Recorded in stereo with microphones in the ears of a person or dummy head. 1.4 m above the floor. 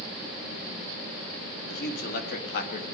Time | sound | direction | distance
1.7 | a man speaking | 65° left (ahead or behind) | 2.5 m